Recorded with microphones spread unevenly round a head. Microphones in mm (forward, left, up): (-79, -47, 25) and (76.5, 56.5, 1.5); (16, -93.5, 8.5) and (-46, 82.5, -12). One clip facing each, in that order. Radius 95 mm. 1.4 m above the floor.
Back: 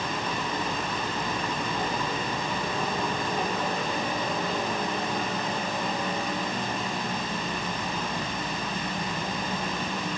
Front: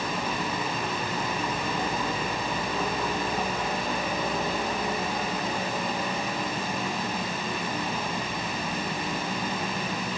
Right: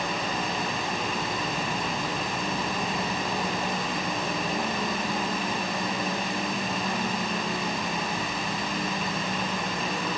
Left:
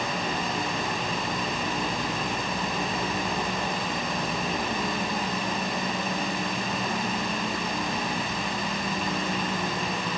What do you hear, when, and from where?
Only background noise.